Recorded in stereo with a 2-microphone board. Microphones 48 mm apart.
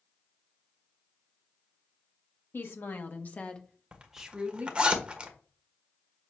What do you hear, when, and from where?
2.5 s a woman speaking: 55° left (ahead or behind), 1.6 m; by 4.9 s 35° right (ahead or behind), 1.5 m
3.9 s a zipper: 25° right (ahead or behind), 1.4 m